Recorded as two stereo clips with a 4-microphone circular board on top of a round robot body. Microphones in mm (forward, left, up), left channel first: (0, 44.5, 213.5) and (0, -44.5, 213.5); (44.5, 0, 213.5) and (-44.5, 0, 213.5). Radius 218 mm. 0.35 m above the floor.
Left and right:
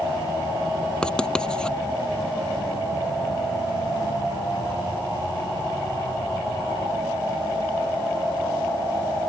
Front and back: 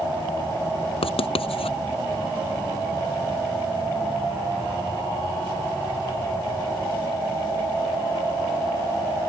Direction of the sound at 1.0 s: 10° left.